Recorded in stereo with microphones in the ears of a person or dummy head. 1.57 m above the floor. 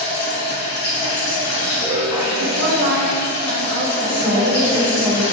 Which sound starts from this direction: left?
Running water, at 0.0 s.